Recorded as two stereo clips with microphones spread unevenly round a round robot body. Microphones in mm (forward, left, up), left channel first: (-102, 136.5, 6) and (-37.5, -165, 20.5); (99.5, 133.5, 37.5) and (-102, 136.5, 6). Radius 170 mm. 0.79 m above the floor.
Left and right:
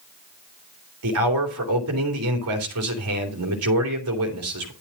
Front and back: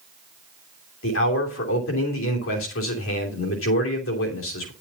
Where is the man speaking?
30° right, 3 m.